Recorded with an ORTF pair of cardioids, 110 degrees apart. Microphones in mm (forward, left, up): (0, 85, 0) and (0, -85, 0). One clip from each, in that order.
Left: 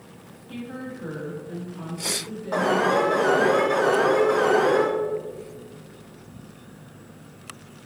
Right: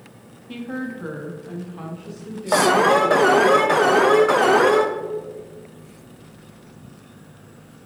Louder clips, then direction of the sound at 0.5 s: Right 5 dB; 40° right.